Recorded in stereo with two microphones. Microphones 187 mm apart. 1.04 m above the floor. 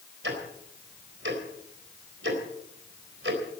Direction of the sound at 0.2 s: 80° right.